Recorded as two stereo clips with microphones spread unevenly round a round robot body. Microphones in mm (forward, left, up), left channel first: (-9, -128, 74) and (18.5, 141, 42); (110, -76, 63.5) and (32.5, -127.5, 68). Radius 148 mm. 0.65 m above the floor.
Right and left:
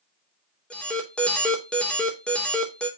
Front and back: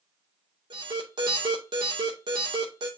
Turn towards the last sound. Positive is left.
turn(degrees=175)